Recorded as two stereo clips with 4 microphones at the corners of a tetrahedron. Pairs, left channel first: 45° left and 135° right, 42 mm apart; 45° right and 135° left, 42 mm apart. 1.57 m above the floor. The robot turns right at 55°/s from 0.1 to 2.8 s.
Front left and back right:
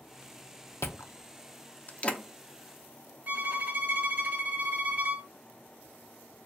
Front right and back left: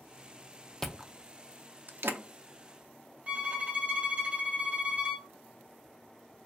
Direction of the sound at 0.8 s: 35° left.